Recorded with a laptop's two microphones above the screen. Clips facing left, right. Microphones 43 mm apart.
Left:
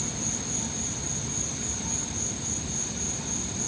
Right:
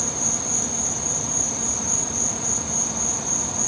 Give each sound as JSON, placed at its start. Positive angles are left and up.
{"t": 0.0, "sound": "an insect", "side_deg": -80}